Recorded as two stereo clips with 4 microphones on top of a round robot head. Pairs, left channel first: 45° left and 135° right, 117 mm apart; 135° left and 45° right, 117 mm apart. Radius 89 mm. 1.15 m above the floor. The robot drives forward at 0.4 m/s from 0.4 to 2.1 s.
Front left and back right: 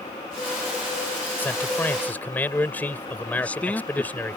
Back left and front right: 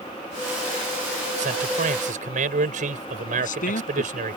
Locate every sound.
1.4 s a man speaking: 30° right
3.4 s a man speaking: 125° left